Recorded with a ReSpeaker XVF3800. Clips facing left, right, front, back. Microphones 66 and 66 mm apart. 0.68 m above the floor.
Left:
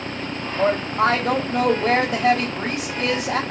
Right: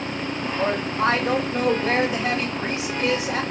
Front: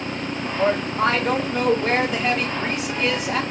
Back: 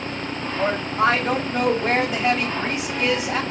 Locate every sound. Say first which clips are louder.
0.6 s a woman speaking: left 4 dB, front 1 dB; 95° left, 1.3 m